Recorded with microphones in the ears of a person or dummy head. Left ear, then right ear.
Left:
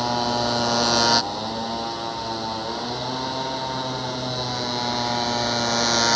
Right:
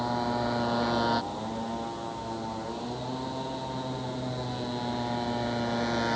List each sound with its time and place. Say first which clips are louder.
0.0 s a motorcycle: left 7 dB; 85° left; by 6.2 s 45° left (ahead or behind)